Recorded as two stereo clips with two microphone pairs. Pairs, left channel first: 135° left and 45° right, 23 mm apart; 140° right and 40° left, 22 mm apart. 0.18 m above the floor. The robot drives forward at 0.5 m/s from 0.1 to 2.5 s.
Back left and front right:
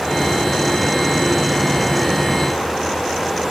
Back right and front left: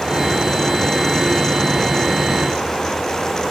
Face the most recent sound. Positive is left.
No sound to turn to.